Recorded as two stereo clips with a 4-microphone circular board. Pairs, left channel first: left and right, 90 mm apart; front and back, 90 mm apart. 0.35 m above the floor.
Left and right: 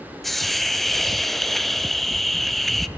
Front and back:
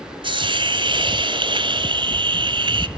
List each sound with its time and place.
0.2 s a hiss: 175° left, 1.3 m